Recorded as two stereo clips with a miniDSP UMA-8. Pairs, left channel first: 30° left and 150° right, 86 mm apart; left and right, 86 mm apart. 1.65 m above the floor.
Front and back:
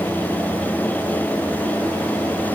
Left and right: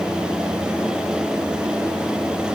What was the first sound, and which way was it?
Only background noise.